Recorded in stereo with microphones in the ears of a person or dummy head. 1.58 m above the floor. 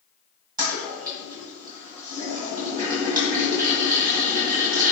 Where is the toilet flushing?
20° right (ahead or behind), 1.3 m.